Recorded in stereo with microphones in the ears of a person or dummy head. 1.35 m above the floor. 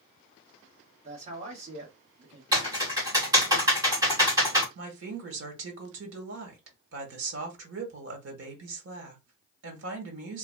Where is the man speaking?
30° right (ahead or behind), 1.7 m.